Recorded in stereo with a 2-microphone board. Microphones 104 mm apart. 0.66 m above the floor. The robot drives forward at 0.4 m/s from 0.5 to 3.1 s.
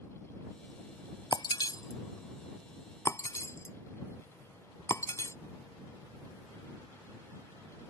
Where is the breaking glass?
45° left (ahead or behind); by 5.3 s 30° left (ahead or behind).